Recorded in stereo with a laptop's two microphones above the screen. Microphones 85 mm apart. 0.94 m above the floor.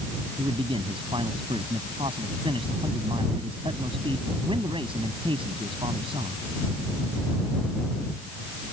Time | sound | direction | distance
0.4 | a man speaking | 80° right | ?